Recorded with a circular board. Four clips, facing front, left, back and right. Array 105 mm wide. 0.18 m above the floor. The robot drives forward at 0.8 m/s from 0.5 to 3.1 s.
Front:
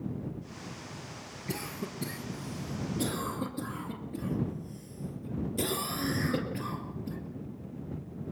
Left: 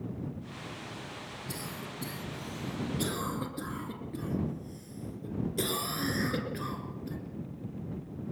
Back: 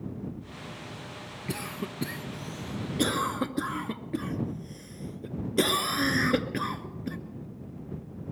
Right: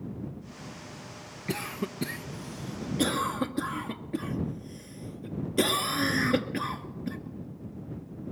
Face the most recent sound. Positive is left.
turn(degrees=-150)